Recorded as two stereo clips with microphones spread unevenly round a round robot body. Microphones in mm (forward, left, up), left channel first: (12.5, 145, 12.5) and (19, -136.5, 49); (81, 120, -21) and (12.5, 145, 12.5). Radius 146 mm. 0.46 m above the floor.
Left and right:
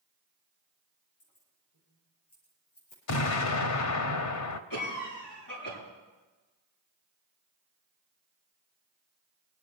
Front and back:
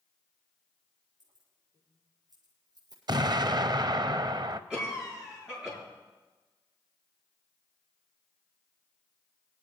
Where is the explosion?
125° left, 0.8 m.